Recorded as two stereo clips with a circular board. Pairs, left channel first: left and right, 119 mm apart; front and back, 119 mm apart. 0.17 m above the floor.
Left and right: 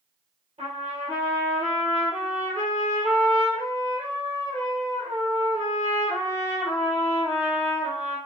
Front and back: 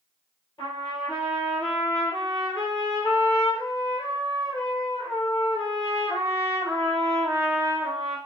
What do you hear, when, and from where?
0.6 s a trumpet: 50° right, 2.5 m